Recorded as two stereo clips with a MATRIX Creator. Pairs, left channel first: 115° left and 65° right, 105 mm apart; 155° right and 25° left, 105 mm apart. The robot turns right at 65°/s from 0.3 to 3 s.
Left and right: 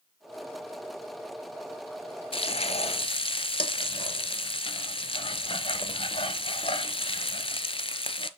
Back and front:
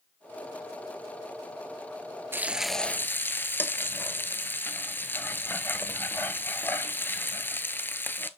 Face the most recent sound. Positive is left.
turn(degrees=135)